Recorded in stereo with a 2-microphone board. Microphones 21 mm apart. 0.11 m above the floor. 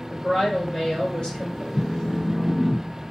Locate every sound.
0.1 s a woman speaking: 45° left (ahead or behind), 2.5 m
1.7 s a phone buzzing: 55° left (ahead or behind), 0.9 m